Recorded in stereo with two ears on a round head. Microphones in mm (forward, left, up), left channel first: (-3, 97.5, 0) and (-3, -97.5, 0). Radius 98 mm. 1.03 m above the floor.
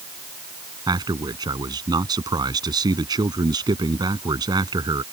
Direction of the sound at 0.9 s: 20° right (ahead or behind).